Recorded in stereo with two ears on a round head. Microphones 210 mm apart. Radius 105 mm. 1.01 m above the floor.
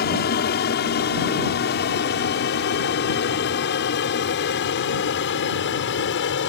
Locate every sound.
0.0 s an aircraft: 45° left (ahead or behind); by 6.5 s 50° left (ahead or behind)